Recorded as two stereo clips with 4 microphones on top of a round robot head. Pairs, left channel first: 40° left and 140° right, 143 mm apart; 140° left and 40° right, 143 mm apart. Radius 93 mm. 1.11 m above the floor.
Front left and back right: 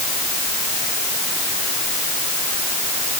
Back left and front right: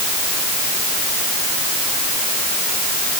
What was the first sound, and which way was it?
Only background noise.